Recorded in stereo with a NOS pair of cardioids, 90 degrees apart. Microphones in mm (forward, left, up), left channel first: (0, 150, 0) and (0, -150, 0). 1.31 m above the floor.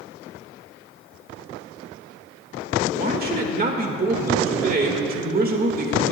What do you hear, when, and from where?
2.9 s a man speaking: 30° right, 1.7 m